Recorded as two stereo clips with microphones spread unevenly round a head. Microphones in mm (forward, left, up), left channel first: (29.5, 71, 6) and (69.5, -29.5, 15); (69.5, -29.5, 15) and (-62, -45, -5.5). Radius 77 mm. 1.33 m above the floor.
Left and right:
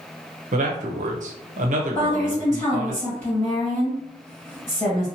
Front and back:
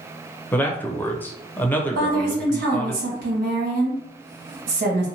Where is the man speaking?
70° right, 0.7 m.